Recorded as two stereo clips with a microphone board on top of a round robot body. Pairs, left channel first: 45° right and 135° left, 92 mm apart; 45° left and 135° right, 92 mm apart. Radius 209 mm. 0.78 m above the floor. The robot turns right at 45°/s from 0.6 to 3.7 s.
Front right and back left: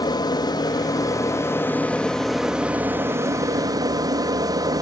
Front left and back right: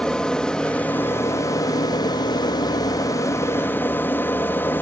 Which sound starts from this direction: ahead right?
An aircraft, at 0.0 s.